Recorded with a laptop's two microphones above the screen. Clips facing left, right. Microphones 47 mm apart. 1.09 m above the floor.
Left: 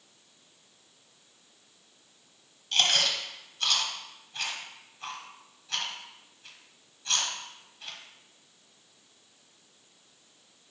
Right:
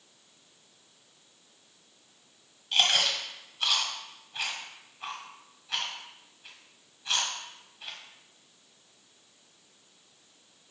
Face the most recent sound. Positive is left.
turn(degrees=-10)  # may be behind; listen again after turning